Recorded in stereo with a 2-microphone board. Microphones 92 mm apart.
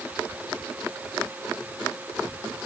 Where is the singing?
No singing in this recording.